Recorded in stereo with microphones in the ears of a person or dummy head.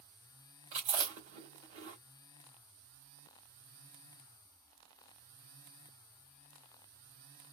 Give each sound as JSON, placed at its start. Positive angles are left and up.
{"t": 0.7, "sound": "chewing", "side_deg": -40, "distance_m": 1.3}